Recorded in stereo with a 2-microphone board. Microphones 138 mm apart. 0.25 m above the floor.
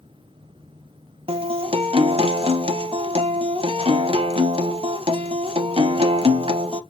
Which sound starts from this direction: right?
A guitar, at 1.3 s.